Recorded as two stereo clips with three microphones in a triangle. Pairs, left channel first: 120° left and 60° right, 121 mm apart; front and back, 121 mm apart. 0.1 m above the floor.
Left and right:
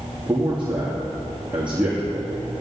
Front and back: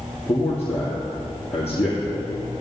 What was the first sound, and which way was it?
A man speaking, 20° left.